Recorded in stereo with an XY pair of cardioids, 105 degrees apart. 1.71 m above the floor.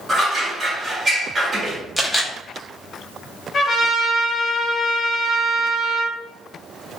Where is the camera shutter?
5° left, 0.7 m.